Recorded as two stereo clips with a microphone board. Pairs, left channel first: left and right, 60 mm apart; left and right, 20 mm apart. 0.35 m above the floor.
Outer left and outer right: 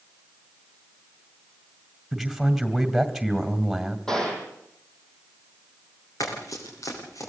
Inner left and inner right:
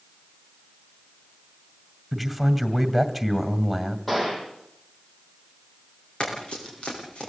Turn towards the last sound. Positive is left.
turn(degrees=60)  # may be behind; listen again after turning